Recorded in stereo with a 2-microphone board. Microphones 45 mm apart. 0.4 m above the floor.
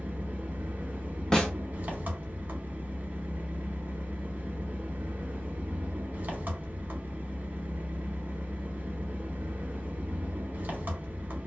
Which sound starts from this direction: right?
An engine running, at 0.0 s.